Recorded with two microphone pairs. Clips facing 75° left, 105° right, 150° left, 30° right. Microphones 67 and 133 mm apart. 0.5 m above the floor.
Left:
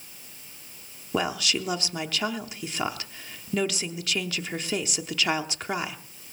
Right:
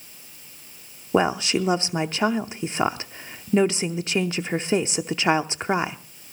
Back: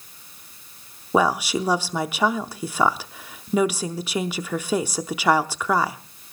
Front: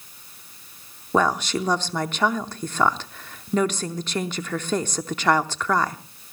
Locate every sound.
1.1 s a woman speaking: 140° right, 0.7 m